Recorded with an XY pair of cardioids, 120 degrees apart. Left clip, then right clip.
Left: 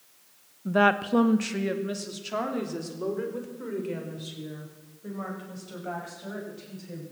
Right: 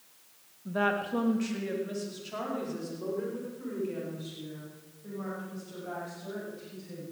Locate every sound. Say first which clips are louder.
0.7 s a woman speaking: left 7 dB; 45° left, 0.8 m; by 7.0 s 40° left, 7.5 m